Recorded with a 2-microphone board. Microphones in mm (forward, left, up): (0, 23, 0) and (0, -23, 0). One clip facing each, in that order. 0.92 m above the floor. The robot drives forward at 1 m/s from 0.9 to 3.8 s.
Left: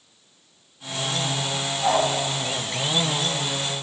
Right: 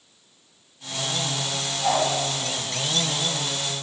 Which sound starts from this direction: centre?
A dog barking, at 1.8 s.